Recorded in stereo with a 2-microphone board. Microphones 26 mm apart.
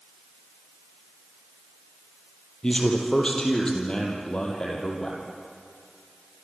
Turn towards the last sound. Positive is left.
turn(degrees=35)  # may be behind; listen again after turning